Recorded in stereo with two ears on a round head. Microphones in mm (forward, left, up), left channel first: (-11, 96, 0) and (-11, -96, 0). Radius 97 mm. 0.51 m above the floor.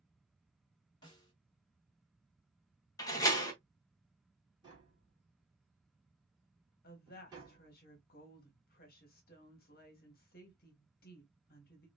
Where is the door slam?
15° left (ahead or behind), 1.3 m.